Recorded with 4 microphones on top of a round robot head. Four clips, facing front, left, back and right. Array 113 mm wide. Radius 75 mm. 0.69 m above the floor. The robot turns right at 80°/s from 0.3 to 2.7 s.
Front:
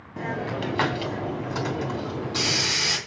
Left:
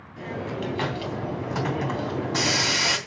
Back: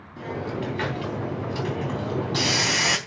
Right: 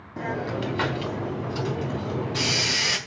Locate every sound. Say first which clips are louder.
0.2 s a hiss: right 3 dB, front 1 dB; 45° right, 3 m; by 3.0 s 150° left, 3 m